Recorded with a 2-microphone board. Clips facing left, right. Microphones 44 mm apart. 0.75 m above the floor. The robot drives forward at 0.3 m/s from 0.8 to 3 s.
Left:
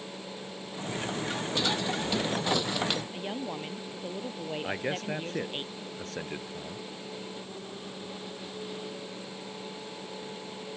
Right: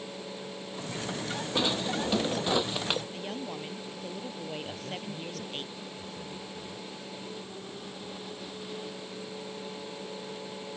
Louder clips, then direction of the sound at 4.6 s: Left 6 dB; 70° left (ahead or behind).